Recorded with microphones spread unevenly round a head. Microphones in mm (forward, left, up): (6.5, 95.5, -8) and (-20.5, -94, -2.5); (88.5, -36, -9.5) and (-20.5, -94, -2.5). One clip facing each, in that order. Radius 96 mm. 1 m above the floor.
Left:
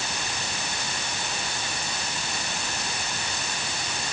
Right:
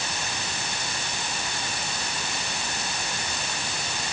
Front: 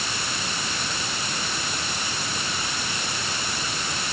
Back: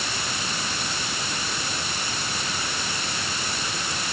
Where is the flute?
No flute in this recording.